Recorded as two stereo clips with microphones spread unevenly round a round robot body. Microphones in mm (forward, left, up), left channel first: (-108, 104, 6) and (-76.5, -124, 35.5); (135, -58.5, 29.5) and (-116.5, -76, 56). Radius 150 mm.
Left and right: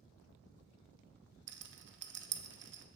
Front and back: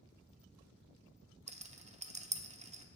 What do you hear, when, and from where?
1.5 s a rattle: 110° right, 0.9 m